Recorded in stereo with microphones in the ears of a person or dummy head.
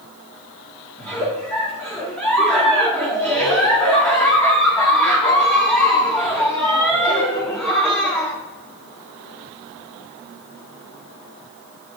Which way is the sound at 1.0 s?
5° left (ahead or behind).